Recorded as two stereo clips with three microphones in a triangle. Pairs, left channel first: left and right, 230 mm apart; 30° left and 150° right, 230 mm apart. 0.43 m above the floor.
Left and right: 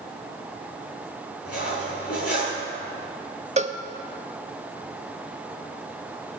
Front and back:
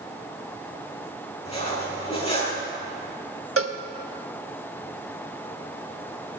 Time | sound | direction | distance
1.4 | cutlery clinking | 90° left | 5.5 m
3.6 | a cowbell | 150° right | 0.6 m